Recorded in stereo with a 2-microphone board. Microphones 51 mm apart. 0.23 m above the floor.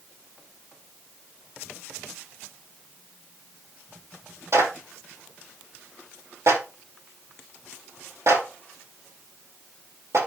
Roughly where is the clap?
Right.